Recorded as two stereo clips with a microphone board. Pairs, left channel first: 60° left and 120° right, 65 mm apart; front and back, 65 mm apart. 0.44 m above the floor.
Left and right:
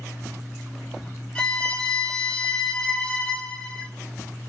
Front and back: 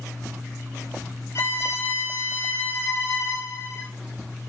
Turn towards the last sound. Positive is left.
turn(degrees=-10)